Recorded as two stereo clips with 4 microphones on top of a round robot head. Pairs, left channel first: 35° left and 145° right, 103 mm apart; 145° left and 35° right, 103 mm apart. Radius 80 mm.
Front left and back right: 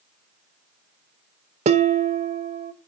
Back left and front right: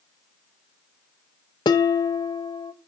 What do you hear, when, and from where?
1.6 s dishes clattering: 165° right, 0.5 m